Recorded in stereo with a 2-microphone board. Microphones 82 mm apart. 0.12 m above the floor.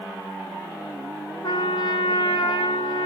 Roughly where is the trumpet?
Left.